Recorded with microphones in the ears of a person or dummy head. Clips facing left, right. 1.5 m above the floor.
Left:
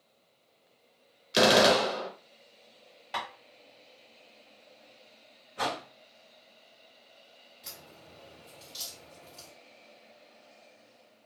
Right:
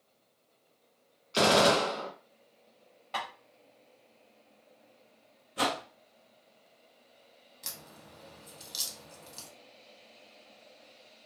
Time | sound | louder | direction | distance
1.3 | a gunshot | left 2 dB | 15° left (ahead or behind) | 0.6 m
3.1 | tapping | even | 20° left (ahead or behind) | 0.9 m
5.6 | a whoosh | right 2 dB | 50° right (ahead or behind) | 0.6 m
7.6 | a crack | even | 70° right (ahead or behind) | 1.3 m